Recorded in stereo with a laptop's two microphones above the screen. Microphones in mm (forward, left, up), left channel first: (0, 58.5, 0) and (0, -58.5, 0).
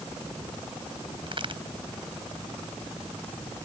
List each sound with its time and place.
1.3 s a crack: 50° right (ahead or behind)